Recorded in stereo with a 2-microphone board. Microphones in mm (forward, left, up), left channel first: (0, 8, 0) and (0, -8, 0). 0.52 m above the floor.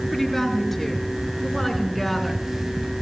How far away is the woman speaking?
About 6.5 m.